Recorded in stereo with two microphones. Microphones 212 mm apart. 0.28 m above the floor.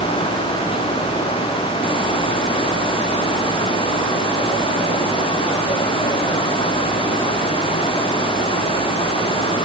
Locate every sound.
Only background noise.